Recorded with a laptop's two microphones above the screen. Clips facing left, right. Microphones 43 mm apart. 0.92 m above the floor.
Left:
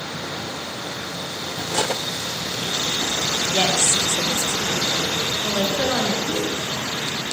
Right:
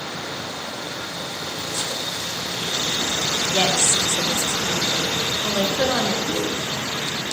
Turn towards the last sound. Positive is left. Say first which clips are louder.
# even
turn(degrees=25)  # may be behind; listen again after turning